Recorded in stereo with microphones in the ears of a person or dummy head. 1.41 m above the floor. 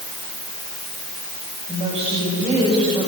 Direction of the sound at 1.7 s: 30° right (ahead or behind).